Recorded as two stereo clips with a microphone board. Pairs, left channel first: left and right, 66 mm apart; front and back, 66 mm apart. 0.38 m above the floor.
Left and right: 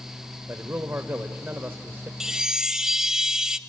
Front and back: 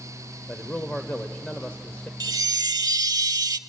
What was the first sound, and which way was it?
A man speaking, 60° right.